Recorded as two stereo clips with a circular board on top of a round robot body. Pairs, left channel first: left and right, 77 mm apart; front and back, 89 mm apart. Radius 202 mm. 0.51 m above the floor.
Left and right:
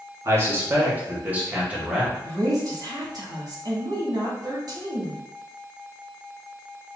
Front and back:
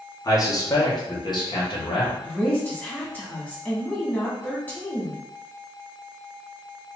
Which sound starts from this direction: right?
A woman speaking, at 2.2 s.